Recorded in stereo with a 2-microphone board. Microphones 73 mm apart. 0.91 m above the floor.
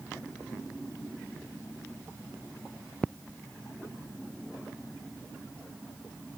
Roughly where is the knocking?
I don't hear knocking.